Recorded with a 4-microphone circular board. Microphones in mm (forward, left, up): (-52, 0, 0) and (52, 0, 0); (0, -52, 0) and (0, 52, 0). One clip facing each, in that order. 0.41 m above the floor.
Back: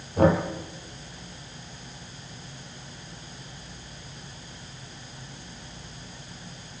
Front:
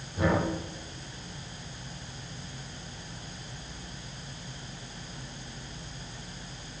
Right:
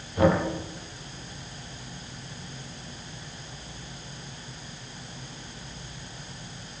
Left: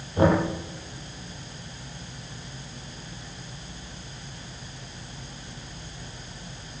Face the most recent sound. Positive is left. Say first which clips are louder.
# back 6 dB, left 1 dB
turn(degrees=150)